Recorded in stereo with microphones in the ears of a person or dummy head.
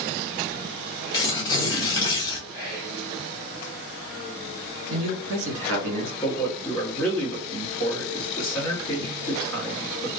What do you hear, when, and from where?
1.1 s tearing paper: 20° left (ahead or behind), 1.0 m
2.5 s whispering: 10° right (ahead or behind), 1.0 m
4.9 s a man speaking: 80° right, 1.4 m
6.2 s a man speaking: centre (ahead or behind), 0.8 m